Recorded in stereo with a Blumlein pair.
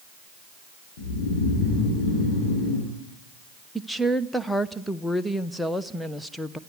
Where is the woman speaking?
Straight ahead, 0.9 m.